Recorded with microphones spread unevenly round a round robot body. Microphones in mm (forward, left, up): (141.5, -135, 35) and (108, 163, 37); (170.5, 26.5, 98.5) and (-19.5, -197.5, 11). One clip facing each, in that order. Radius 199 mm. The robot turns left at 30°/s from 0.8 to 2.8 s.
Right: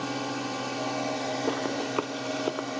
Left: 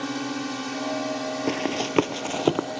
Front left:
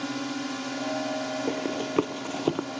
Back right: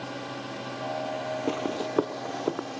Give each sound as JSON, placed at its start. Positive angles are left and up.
{"t": 0.0, "sound": "a drone", "azimuth_deg": 50}
{"t": 1.5, "sound": "running footsteps", "azimuth_deg": 140}